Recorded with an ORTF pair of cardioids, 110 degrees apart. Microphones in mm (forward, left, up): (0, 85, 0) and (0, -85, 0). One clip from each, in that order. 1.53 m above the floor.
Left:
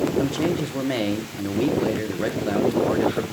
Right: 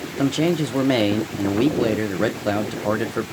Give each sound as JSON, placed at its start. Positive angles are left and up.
{"t": 0.2, "sound": "a man speaking", "azimuth_deg": -30, "distance_m": 1.2}